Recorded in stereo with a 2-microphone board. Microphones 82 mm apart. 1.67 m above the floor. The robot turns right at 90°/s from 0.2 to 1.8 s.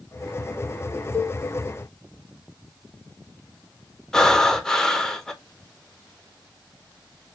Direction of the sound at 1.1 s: 25° left (ahead or behind).